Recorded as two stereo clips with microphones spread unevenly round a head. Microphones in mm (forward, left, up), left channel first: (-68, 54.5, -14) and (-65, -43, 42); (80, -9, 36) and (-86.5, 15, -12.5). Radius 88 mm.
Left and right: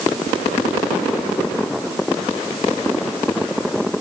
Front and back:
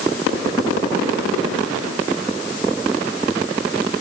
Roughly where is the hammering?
I don't hear hammering.